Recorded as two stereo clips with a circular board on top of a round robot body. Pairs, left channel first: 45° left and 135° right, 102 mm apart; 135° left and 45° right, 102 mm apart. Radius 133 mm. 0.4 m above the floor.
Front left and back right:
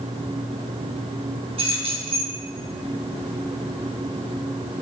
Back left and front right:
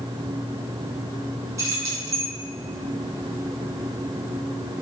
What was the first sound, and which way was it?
Keys jangling, 105° right.